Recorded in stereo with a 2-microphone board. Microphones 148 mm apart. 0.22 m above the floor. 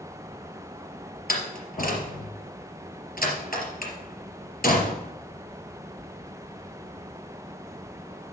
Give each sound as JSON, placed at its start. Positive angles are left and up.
{"t": 1.3, "sound": "a door slam", "side_deg": 75, "distance_m": 3.5}